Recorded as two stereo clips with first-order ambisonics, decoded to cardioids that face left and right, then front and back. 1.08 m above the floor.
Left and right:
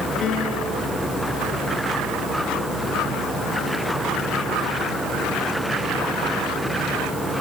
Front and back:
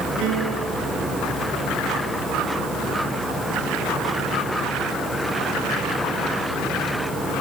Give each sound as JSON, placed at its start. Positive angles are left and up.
{"t": 0.2, "sound": "a piano", "azimuth_deg": 140, "distance_m": 4.0}